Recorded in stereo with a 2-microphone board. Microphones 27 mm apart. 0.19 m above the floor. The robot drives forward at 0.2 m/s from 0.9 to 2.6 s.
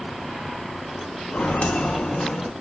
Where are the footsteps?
75° left (ahead or behind), 0.8 m; by 2.5 s 10° left (ahead or behind), 0.7 m.